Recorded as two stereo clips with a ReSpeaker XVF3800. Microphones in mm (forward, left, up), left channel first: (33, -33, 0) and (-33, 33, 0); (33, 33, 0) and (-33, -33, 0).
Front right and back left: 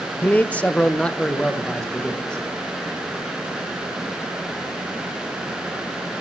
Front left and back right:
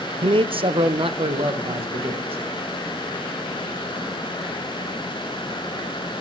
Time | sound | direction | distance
0.2 | a man speaking | 115° right | 0.5 m